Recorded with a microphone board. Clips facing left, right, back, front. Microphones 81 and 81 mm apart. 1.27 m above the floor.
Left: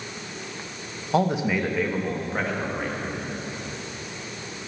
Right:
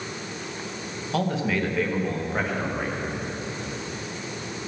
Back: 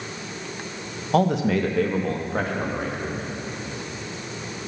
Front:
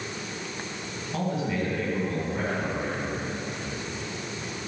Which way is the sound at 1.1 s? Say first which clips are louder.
Left 3 dB, back 9 dB; 155° left.